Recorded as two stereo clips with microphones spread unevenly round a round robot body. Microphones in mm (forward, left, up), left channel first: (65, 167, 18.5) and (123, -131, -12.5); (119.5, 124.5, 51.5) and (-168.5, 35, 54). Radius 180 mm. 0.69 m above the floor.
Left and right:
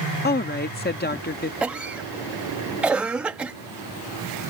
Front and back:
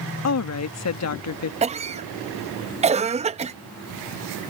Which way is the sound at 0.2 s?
40° left.